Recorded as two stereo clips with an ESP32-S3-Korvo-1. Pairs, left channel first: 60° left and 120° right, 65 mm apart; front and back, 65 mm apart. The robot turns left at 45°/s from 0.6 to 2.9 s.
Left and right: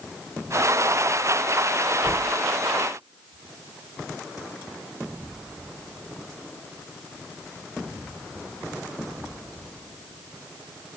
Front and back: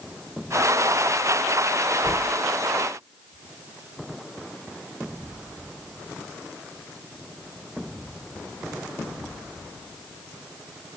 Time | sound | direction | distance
2.0 | knocking | 20° right | 2.5 m